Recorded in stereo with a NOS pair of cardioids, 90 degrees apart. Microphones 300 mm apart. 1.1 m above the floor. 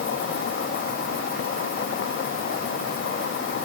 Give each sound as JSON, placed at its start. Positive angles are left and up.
{"t": 0.0, "sound": "an insect", "azimuth_deg": 45}